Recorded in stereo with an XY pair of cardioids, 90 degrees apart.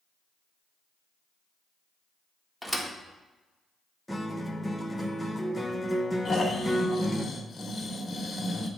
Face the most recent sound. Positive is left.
turn(degrees=30)